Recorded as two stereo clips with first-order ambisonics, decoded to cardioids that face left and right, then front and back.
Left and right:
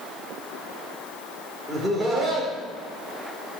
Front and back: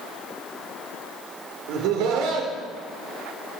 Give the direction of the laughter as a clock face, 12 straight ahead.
6 o'clock.